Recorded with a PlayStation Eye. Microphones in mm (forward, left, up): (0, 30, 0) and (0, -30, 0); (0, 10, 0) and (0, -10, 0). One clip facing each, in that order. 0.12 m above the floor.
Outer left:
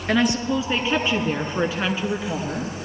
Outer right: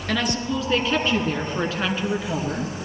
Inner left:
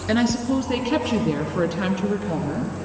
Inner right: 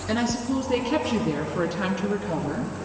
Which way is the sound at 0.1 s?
20° left (ahead or behind).